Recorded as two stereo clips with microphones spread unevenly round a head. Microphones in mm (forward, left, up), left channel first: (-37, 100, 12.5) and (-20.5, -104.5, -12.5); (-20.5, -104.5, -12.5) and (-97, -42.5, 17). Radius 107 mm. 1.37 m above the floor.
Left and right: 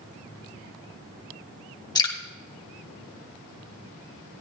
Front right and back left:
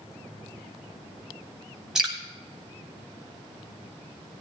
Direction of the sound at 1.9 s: 110° left.